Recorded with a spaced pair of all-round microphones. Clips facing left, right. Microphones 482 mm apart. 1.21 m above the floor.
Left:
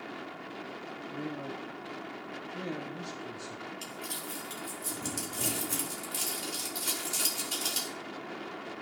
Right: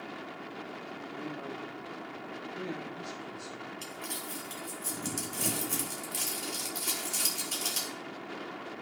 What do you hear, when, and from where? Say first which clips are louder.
1.1 s a man speaking: left 3 dB; 55° left (ahead or behind), 0.7 m
3.8 s crumpling: even; 60° left (ahead or behind), 2 m